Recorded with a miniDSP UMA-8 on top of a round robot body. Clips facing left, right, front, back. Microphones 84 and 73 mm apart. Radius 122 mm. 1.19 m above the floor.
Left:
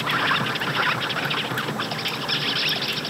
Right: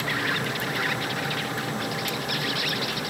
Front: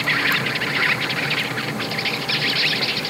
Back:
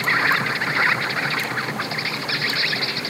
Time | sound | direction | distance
0.0 | an insect | 115° left | ?